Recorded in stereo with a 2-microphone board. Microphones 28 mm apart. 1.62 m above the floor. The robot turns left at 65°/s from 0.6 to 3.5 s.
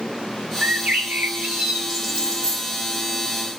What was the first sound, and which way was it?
A bird, 80° right.